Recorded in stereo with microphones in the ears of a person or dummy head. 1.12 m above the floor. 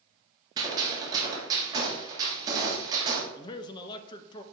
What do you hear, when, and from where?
0.6 s a gunshot: 25° right (ahead or behind), 3 m
3.4 s a man speaking: 25° left (ahead or behind), 1.0 m